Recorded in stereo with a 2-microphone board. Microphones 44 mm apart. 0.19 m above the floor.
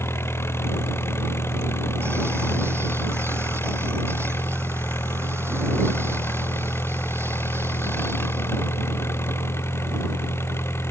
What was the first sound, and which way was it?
An engine running, 80° left.